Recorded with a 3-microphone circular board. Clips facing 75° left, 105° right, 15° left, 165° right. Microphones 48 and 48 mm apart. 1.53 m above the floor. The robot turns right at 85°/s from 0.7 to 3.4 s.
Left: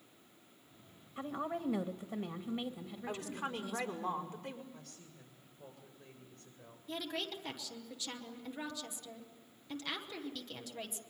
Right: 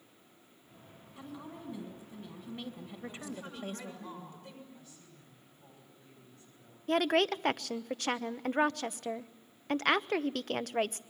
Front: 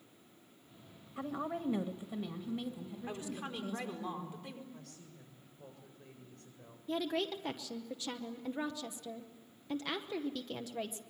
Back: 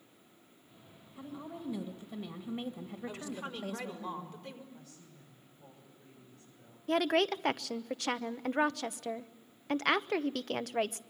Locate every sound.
1.2 s a woman speaking: 20° left, 1.8 m; by 4.1 s 150° right, 1.8 m
3.1 s a woman speaking: 70° left, 5 m; by 4.6 s 100° left, 5 m
4.7 s a woman speaking: 45° left, 7.5 m
6.9 s a woman speaking: 140° right, 0.8 m